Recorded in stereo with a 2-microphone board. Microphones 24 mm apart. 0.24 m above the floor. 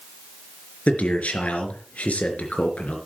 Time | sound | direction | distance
0.9 | a man speaking | 70° left (ahead or behind) | 3.5 m